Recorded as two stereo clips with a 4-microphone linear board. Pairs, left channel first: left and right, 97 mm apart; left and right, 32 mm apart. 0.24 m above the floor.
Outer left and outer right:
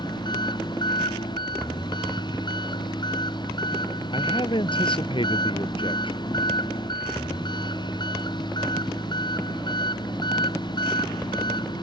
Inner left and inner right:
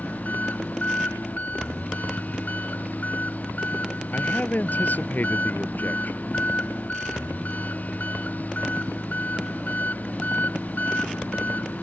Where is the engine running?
50° left (ahead or behind).